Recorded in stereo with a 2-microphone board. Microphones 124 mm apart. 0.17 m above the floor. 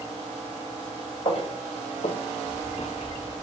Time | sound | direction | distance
1.2 | footsteps | 45° left (ahead or behind) | 1.1 m